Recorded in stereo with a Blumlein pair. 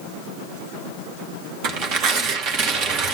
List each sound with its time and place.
1.6 s tearing paper: 35° right, 1.6 m